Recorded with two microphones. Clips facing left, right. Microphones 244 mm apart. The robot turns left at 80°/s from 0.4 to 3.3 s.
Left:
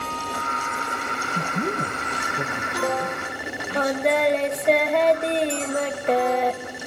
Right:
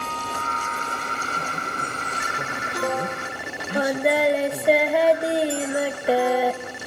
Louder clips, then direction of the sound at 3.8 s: Right 1 dB; 10° right (ahead or behind).